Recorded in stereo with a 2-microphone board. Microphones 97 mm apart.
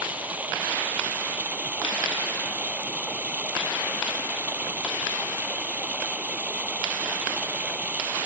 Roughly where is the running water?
Centre.